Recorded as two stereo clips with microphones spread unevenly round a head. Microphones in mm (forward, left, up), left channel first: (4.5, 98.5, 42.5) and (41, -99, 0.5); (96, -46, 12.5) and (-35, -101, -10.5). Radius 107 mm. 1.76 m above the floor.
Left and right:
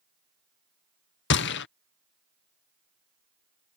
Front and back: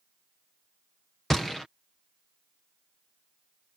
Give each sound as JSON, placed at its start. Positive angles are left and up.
{"t": 1.3, "sound": "a gunshot", "azimuth_deg": 105}